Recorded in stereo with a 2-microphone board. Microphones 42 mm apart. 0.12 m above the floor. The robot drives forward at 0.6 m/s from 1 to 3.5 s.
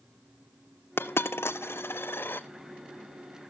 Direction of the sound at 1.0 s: 70° left (ahead or behind).